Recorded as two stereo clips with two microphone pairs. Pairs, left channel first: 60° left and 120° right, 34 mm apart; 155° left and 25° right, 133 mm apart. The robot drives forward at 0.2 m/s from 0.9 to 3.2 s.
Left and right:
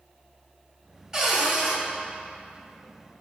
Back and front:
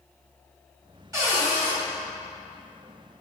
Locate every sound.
1.1 s a cupboard door: 55° right, 1.1 m; by 1.8 s 70° right, 1.1 m